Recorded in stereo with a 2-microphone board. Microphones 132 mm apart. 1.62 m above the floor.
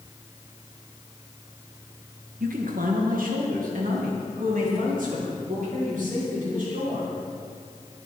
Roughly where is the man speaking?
Right.